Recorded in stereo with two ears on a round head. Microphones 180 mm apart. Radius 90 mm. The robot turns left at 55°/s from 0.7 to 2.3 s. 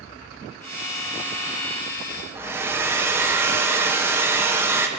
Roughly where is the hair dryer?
Centre.